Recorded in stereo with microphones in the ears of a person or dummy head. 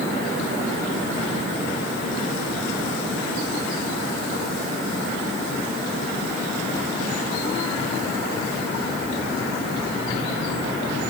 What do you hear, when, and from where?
Only background noise.